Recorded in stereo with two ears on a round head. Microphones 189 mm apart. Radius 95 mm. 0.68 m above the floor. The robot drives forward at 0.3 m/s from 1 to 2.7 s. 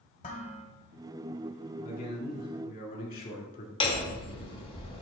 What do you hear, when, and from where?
0.2 s dishes clattering: 40° left (ahead or behind), 1.9 m
1.8 s a man speaking: 40° left (ahead or behind), 2 m; by 3.7 s 45° left (ahead or behind), 1.9 m
3.8 s hammering: 30° left (ahead or behind), 2 m